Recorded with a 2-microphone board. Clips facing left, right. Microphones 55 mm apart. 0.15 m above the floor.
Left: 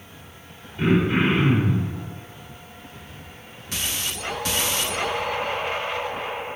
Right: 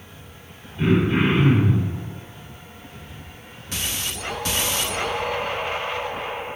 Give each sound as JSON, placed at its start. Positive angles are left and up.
{"t": 0.8, "sound": "throat clearing", "side_deg": 15, "distance_m": 1.6}